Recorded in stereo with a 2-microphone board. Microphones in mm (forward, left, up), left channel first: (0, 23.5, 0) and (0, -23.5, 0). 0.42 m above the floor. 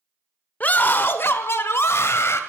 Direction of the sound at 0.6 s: 35° left (ahead or behind).